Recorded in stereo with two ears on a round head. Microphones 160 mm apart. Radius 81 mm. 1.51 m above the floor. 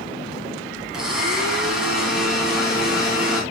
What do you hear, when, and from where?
0.9 s a blender: 5° right (ahead or behind), 3.5 m